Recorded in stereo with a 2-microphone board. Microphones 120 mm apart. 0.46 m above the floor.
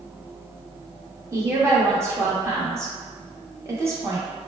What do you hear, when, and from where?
1.3 s a woman speaking: 25° right (ahead or behind), 0.7 m